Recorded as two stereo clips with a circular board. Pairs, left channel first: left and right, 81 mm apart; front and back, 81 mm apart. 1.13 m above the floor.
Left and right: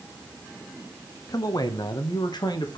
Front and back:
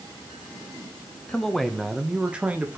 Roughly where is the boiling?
No boiling in this recording.